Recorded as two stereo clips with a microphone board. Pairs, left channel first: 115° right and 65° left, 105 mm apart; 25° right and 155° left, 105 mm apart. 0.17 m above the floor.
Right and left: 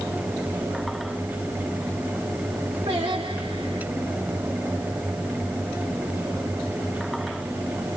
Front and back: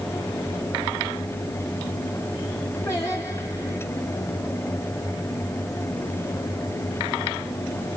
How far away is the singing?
About 6 m.